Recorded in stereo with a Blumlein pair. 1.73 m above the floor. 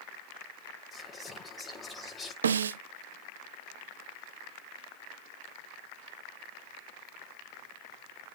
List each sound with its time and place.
0.9 s whispering: 10° left, 1.7 m
2.4 s a snare drum: 65° right, 0.7 m